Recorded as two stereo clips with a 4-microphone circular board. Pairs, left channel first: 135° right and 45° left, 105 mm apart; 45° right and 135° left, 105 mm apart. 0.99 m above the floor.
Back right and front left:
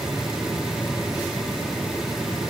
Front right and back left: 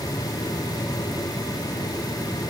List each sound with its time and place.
Only background noise.